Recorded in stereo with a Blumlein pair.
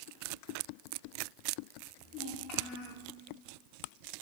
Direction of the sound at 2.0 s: 25° left.